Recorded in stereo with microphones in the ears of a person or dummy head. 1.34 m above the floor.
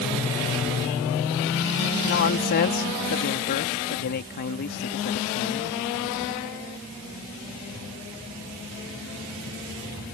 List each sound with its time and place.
2.0 s a man speaking: 50° left (ahead or behind)